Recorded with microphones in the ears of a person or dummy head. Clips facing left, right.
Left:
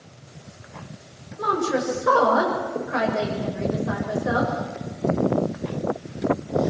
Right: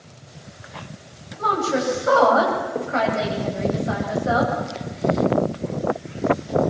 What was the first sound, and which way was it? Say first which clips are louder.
A woman speaking: right 1 dB; 75° left (ahead or behind).